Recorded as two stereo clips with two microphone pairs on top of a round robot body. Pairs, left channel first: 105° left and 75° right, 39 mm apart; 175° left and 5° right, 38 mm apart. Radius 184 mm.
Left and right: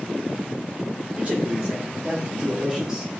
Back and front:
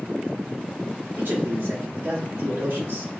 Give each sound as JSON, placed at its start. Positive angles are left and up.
{"t": 1.2, "sound": "a man speaking", "azimuth_deg": -25, "distance_m": 2.5}